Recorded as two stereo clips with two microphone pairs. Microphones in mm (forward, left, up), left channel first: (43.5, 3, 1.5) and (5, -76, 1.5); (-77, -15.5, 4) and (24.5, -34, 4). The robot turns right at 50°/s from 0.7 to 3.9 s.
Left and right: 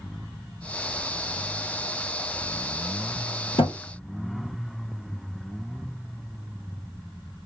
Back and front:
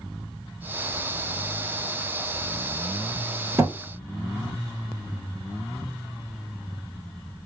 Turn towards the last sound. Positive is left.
turn(degrees=70)